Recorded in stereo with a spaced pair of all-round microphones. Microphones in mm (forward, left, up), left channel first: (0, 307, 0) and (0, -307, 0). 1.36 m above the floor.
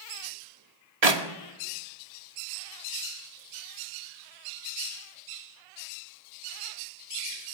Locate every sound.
1.0 s a clap: 75° right (ahead or behind), 2.5 m